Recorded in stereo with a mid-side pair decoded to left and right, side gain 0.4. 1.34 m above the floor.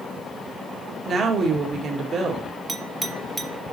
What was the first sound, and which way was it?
A woman speaking, 60° right.